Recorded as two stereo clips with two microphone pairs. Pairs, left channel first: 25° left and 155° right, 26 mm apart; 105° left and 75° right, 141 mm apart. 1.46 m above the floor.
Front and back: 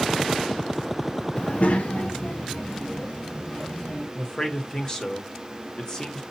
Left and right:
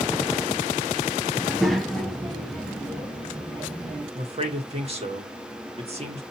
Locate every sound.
1.4 s a child speaking: 10° left, 0.5 m; by 4.0 s 25° left, 2.5 m
4.2 s a man speaking: 30° right, 1.2 m